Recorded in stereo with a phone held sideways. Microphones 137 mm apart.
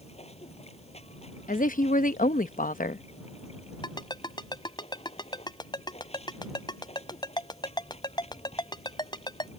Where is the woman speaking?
80° left.